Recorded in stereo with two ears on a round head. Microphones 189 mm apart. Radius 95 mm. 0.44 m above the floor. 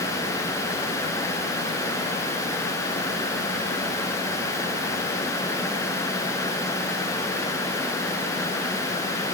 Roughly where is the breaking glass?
No breaking glass in this recording.